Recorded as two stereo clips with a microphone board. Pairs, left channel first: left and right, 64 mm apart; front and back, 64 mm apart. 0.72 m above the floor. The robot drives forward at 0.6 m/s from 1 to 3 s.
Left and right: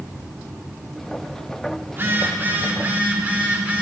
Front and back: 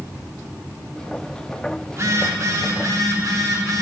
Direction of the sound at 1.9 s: 140° right.